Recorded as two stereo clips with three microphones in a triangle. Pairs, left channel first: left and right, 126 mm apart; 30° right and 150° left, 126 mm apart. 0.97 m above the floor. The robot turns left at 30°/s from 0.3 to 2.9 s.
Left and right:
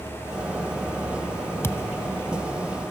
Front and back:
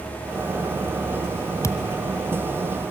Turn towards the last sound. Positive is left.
turn(degrees=-10)